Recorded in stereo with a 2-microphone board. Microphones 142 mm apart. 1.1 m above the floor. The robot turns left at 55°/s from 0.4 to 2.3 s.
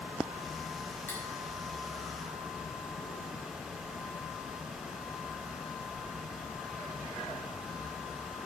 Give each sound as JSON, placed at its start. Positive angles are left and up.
{"t": 1.1, "sound": "cutlery clinking", "side_deg": 15, "distance_m": 0.7}